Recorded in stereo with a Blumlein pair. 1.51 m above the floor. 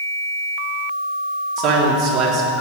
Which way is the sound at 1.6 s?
40° right.